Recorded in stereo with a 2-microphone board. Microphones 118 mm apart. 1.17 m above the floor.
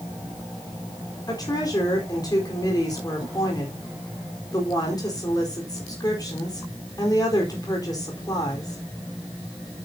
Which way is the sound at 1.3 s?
30° left (ahead or behind).